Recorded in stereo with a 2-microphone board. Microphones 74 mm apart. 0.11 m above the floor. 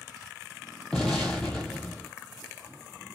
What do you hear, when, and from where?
0.9 s an explosion: 10° left (ahead or behind), 0.8 m